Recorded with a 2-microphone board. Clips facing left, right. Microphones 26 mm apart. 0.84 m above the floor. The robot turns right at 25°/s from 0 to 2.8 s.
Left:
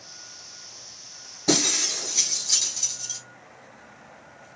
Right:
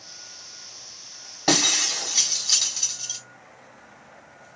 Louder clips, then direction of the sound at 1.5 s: Right 2 dB; 70° right (ahead or behind).